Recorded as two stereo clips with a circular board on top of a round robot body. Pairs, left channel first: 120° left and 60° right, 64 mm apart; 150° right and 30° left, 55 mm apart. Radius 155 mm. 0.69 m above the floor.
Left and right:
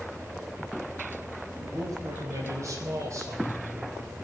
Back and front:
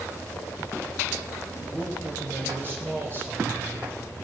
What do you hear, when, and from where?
1.6 s a man speaking: 25° right, 4.5 m; by 4.1 s 15° right, 2.5 m